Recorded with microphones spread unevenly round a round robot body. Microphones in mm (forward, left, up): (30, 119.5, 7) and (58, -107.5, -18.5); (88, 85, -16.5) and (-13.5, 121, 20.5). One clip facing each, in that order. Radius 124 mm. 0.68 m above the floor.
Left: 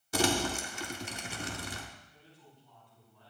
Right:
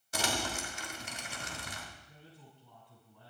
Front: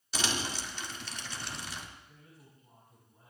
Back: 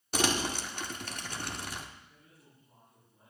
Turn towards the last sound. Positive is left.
turn(degrees=-85)